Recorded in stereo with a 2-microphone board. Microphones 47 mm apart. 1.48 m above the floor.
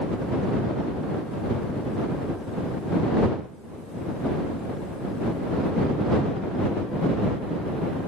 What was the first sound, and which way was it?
Only background noise.